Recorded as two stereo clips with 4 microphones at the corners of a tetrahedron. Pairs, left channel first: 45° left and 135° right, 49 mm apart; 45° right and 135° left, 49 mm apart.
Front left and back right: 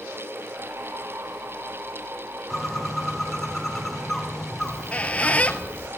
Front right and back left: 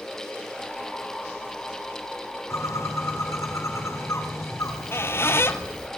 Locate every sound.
2.5 s a bird: 40° right, 6 m
4.6 s a squeak: 15° right, 1.2 m